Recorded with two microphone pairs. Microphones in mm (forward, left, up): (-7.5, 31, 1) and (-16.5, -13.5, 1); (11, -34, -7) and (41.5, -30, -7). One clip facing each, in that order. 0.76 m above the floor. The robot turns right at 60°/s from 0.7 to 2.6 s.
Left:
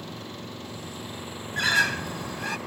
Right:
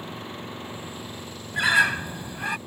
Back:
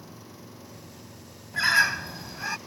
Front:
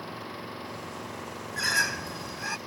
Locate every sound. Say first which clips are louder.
0.0 s an engine running: right 2 dB, front 8 dB; 35° right; by 2.7 s 80° left
1.5 s a bird: right 3 dB, back 5 dB; 145° right; by 2.6 s 85° right